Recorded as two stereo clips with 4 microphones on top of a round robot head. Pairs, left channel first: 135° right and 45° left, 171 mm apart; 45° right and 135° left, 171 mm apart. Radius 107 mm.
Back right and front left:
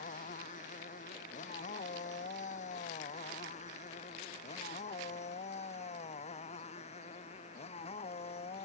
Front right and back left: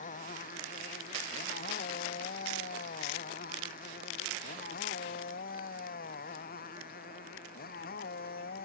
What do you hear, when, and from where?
0.0 s a motorcycle: 90° right; by 8.7 s 80° right